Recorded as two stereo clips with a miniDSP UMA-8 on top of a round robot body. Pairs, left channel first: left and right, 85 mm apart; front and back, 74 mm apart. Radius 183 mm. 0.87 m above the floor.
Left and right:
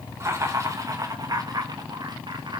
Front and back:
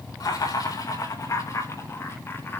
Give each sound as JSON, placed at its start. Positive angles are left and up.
{"t": 0.2, "sound": "laughter", "azimuth_deg": -30, "distance_m": 5.0}